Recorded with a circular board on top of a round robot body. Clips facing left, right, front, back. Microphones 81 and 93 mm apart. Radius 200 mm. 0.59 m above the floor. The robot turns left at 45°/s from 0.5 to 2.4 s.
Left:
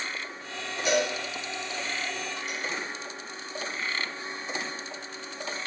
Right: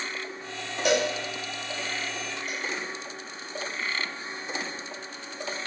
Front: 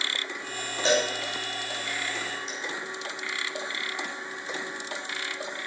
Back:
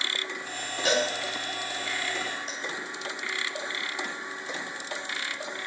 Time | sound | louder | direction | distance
0.8 | a cowbell | right 2 dB, front 2 dB | 65° right | 6.5 m